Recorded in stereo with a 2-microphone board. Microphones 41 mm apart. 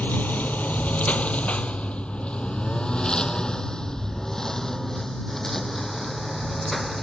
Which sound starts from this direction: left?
A lawn mower, at 0.0 s.